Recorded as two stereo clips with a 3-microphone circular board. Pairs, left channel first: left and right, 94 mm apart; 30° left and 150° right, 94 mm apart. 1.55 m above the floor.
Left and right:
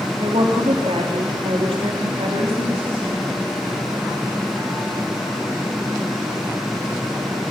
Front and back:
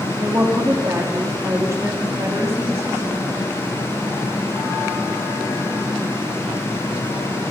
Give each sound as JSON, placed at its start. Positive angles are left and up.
{"t": 0.2, "sound": "a woman speaking", "azimuth_deg": -90, "distance_m": 3.5}